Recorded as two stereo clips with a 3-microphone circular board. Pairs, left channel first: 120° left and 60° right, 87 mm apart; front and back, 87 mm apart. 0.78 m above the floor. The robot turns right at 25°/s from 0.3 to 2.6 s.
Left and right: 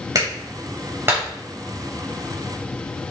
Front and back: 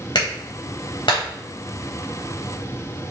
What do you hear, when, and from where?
0.1 s a clap: 20° right, 3.5 m; by 1.2 s 5° left, 3.5 m